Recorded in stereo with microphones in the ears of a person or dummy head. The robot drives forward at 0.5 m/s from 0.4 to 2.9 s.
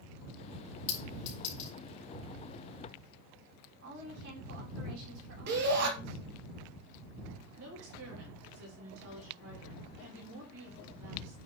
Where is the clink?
35° left (ahead or behind), 4 m; by 1.7 s 40° left (ahead or behind), 3.5 m.